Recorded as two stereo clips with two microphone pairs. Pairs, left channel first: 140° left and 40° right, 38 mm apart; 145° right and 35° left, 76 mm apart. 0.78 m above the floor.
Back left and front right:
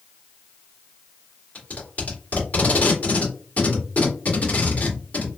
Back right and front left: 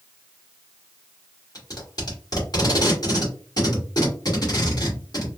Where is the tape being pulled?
175° right, 2.5 m.